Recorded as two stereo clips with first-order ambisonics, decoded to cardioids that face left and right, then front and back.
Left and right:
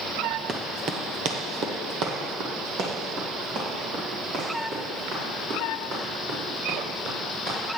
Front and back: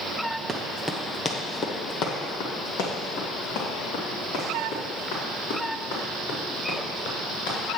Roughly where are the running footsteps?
Behind right.